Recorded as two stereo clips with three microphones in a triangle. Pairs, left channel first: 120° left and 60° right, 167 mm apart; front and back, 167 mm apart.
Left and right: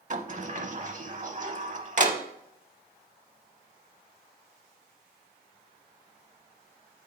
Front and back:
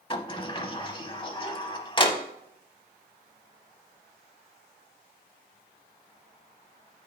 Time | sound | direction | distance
0.1 | a sliding door | 50° right | 0.6 m